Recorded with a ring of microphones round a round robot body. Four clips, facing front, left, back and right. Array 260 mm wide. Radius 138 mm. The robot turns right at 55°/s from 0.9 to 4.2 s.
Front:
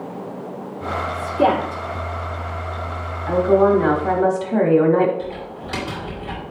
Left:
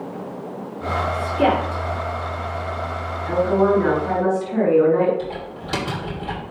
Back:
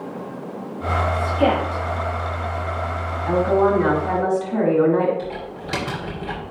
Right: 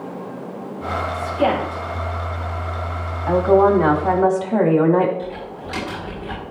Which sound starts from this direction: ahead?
A woman speaking, at 1.1 s.